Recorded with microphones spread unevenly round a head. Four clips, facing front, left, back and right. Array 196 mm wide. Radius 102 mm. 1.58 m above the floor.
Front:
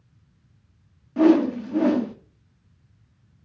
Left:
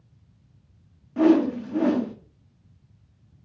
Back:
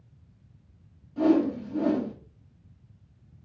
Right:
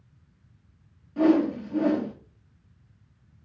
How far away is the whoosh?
About 0.6 m.